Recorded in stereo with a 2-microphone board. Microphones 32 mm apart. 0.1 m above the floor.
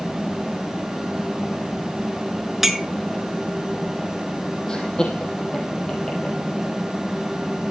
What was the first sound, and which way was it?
A clink, 10° right (ahead or behind).